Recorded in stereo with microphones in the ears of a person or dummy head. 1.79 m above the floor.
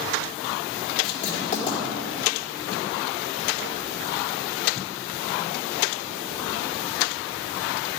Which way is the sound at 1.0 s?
40° left (ahead or behind).